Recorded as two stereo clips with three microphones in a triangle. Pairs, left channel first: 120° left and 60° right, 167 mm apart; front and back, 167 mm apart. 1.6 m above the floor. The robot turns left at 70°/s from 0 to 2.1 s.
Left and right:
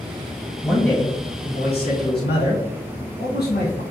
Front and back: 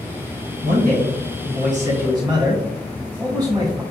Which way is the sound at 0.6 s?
145° right.